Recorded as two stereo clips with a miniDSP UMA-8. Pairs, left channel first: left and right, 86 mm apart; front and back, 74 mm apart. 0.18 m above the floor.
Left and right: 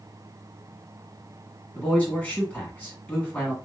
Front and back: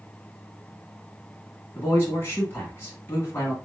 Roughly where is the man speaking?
Ahead left.